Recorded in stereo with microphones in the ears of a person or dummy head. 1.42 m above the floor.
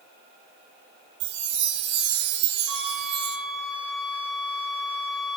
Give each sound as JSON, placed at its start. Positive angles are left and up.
{"t": 1.2, "sound": "a chime", "side_deg": -60, "distance_m": 3.0}
{"t": 2.7, "sound": "a flute", "side_deg": 0, "distance_m": 3.5}